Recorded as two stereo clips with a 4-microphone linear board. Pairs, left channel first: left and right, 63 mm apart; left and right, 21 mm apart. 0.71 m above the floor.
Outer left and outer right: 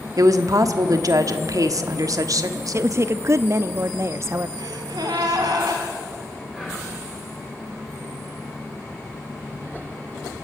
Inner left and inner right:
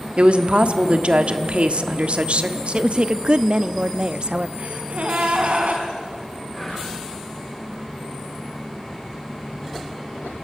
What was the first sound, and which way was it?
A woman speaking, 60° right (ahead or behind).